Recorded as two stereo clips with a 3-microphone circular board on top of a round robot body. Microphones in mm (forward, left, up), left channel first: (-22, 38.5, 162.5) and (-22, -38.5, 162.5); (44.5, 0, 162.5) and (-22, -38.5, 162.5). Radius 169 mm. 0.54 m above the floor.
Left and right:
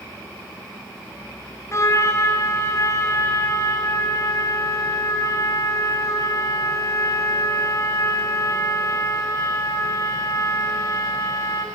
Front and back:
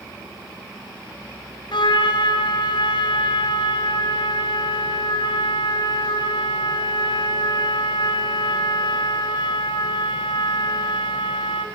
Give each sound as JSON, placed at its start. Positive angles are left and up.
{"t": 1.7, "sound": "a trumpet", "azimuth_deg": 35, "distance_m": 2.5}